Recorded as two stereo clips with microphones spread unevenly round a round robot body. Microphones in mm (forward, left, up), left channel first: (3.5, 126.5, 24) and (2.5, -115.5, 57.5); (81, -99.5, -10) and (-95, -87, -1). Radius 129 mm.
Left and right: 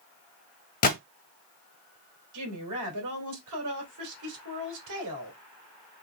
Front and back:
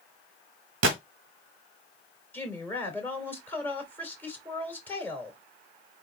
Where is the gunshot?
150° left, 0.8 m.